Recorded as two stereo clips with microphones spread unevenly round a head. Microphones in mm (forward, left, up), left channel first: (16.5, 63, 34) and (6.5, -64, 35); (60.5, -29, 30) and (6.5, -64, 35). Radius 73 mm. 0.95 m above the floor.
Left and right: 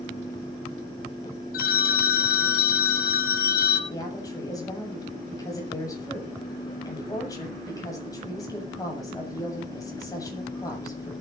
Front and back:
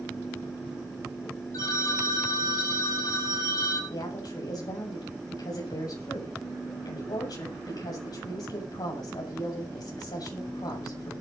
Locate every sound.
1.5 s a phone ringing: 90° left, 5 m
3.9 s a woman speaking: 25° left, 7.5 m